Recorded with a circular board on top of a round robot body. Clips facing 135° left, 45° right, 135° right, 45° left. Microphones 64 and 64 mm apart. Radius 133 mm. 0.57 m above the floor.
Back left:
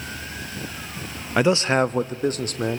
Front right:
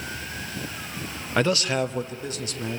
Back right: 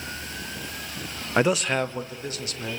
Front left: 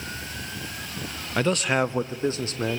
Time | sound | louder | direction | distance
1.4 | a man speaking | back left 4 dB, back right 1 dB | 155° right | 0.7 m